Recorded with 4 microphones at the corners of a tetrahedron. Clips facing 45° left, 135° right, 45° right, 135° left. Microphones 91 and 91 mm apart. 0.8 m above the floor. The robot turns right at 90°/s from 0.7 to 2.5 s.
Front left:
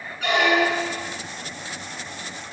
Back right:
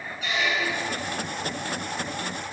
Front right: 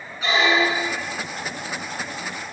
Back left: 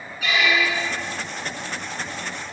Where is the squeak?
15° left, 1.2 m; by 1.2 s 60° left, 1.2 m.